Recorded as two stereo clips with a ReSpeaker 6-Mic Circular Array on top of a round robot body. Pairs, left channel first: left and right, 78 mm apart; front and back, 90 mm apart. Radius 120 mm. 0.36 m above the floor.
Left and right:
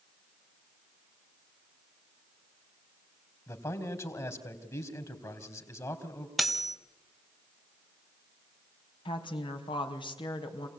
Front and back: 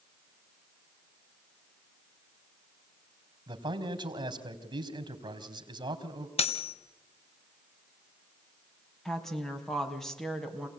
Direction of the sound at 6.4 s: Straight ahead.